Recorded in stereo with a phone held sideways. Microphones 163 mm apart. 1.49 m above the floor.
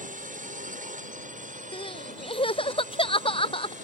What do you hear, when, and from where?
0.0 s a drone: 55° right (ahead or behind); by 3.8 s 50° right (ahead or behind)
1.7 s crying: 35° left (ahead or behind)